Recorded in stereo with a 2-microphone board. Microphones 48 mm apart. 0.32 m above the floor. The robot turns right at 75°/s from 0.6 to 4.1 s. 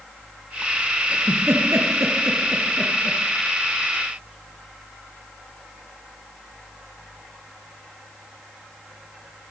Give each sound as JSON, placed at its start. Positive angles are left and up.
{"t": 1.1, "sound": "a giggle", "side_deg": -25, "distance_m": 5.0}